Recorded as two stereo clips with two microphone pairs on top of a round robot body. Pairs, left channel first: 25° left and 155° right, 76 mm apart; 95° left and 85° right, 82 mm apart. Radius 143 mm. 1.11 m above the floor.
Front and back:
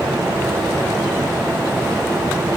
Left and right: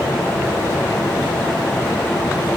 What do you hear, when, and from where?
Only background noise.